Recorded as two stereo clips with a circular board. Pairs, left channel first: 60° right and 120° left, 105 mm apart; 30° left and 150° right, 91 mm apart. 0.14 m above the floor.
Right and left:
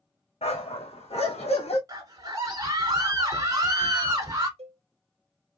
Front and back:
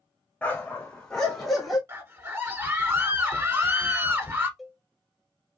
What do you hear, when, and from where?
0.4 s a dog barking: 45° right, 2.5 m; by 1.8 s 60° right, 1.9 m
1.9 s a scream: 160° left, 1.6 m
4.6 s a cowbell: 120° left, 0.7 m